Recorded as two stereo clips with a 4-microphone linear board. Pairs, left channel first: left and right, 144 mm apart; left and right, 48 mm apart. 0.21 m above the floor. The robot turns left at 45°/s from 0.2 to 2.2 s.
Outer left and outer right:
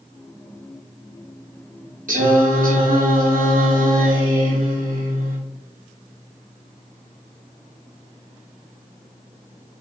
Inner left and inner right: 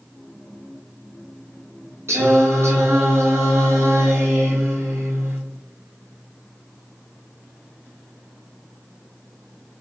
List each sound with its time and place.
2.1 s singing: 65° right (ahead or behind), 2 m; by 5.4 s 70° right (ahead or behind), 2 m